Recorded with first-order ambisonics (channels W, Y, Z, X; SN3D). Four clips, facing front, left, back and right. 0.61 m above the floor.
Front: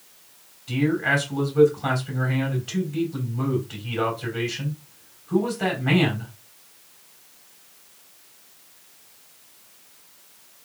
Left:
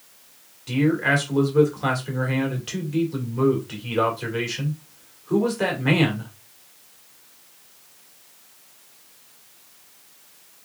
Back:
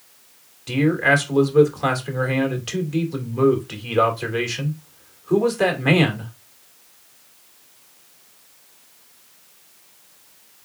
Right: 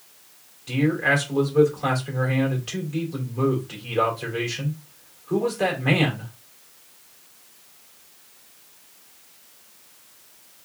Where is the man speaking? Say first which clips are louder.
Left 1 dB, back 4 dB; 165° left, 2.5 m.